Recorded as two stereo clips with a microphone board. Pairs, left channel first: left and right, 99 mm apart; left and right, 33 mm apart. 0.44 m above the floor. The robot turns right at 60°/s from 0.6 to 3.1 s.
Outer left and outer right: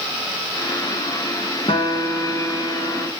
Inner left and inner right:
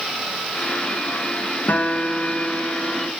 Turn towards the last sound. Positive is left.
turn(degrees=-175)